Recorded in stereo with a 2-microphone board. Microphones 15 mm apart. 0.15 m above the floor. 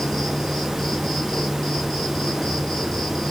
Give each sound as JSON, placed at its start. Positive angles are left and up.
{"t": 0.0, "sound": "an insect", "side_deg": 35, "distance_m": 4.0}